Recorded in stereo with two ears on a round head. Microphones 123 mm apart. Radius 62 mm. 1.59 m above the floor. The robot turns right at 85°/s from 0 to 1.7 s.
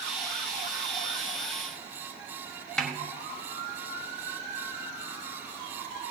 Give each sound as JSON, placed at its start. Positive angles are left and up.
{"t": 2.8, "sound": "a snare drum", "side_deg": 5, "distance_m": 1.1}